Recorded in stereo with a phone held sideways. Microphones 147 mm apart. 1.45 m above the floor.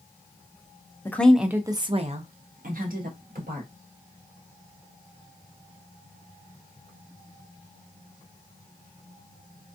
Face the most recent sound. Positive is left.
turn(degrees=-80)